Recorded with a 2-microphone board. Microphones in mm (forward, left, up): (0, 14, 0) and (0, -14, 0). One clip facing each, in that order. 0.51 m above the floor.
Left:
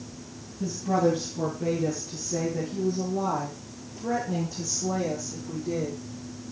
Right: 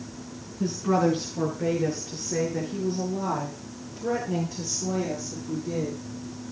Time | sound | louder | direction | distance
0.6 | a woman speaking | right 1 dB | 60° right (ahead or behind) | 4.5 m